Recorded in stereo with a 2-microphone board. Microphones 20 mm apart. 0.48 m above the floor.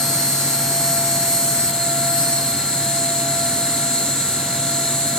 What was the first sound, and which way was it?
An insect, 45° left (ahead or behind).